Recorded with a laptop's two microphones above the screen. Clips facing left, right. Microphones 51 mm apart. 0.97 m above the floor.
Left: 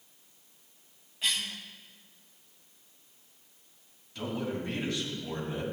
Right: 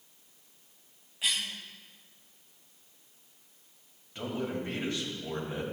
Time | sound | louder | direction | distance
1.2 | a cough | even | 5° right (ahead or behind) | 2 m
4.2 | a man speaking | even | 25° right (ahead or behind) | 5 m